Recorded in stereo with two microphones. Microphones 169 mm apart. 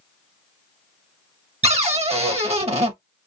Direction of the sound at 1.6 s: 40° right (ahead or behind).